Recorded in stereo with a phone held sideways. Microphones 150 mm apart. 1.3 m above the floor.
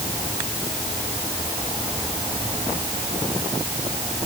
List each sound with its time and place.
Only background noise.